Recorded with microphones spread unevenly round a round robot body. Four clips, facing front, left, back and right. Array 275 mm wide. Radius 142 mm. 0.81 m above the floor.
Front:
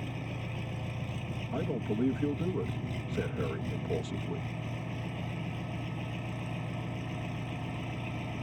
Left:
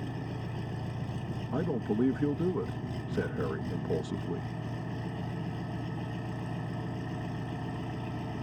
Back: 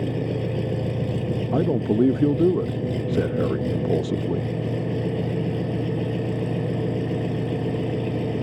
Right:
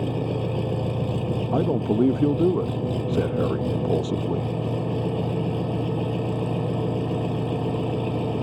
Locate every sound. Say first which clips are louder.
0.0 s an engine running: right 13 dB, back 14 dB; 150° right
1.5 s a man speaking: right 8 dB, back 12 dB; 150° right